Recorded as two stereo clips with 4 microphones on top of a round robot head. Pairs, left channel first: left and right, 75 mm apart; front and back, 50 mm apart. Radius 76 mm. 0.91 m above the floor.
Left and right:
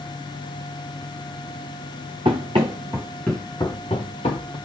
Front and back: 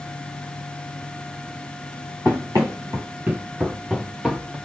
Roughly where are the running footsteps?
Behind right.